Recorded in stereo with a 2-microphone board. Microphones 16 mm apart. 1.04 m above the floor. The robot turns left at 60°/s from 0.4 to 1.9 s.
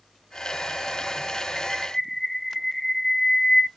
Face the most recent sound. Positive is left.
turn(degrees=10)  # may be behind; listen again after turning